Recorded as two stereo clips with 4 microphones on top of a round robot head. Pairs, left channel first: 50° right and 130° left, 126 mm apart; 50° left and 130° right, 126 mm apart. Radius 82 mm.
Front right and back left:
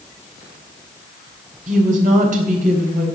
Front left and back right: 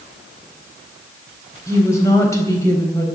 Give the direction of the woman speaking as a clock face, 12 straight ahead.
8 o'clock.